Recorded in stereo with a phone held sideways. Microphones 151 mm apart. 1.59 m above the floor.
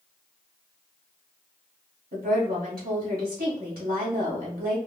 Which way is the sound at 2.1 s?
80° right.